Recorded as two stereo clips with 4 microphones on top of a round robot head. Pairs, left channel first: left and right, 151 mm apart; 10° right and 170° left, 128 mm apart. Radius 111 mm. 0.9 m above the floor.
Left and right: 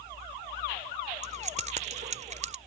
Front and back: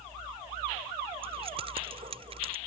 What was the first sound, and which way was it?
Keys jangling, 130° right.